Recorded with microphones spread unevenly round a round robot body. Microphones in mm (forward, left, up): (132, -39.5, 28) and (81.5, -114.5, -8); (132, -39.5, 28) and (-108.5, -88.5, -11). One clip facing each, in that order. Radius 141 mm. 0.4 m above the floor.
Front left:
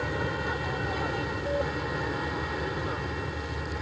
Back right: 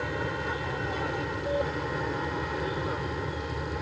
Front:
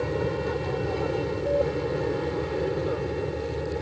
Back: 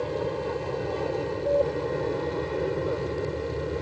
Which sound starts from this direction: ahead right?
An aircraft, at 0.0 s.